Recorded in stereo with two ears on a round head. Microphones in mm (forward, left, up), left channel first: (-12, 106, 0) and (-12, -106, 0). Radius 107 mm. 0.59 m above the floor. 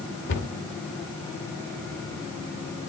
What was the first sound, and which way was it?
A cupboard door, 50° left (ahead or behind).